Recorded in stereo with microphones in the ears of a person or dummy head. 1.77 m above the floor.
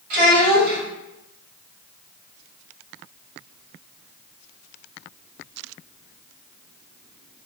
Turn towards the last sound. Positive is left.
turn(degrees=-70)  # may be behind; listen again after turning